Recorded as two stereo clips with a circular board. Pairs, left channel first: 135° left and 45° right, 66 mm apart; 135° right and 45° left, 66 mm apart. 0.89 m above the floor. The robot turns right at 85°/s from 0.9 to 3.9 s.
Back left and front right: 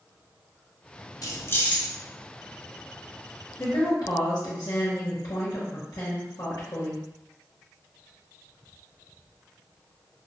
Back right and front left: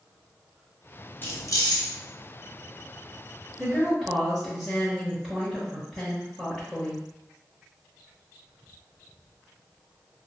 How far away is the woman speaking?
About 1.1 m.